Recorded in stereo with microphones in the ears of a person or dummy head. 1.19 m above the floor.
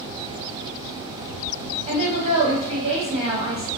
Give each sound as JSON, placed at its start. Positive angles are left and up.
{"t": 1.9, "sound": "a woman speaking", "side_deg": -35, "distance_m": 1.2}